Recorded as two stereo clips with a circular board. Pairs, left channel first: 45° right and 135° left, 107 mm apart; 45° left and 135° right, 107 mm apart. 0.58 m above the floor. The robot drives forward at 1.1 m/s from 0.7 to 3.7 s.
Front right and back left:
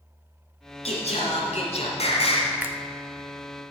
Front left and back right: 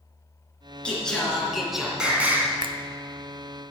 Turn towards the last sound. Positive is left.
turn(degrees=-170)